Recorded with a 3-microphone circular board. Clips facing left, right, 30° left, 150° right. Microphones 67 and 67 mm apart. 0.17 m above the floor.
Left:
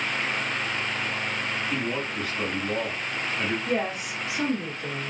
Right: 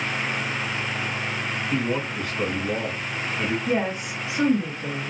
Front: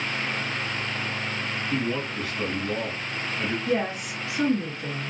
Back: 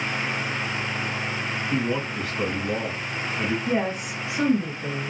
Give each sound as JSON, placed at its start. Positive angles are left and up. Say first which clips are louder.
{"t": 1.7, "sound": "a man speaking", "louder": "right 3 dB, back 2 dB", "azimuth_deg": -175, "distance_m": 1.3}
{"t": 3.7, "sound": "a woman speaking", "louder": "right 3 dB, back 1 dB", "azimuth_deg": -135, "distance_m": 1.3}